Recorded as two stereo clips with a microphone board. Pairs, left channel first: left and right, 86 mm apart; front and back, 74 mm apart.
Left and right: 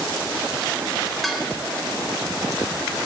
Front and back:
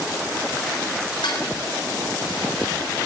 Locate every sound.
1.2 s dishes clattering: straight ahead, 3.5 m